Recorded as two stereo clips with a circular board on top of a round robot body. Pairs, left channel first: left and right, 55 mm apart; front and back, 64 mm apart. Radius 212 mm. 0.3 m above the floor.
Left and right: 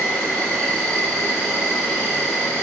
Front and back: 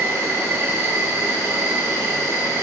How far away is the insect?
About 1.7 m.